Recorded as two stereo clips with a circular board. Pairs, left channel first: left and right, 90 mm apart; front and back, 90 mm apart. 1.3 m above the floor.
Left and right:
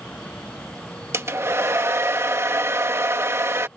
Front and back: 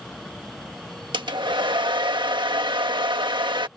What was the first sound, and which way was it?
A hair dryer, 150° right.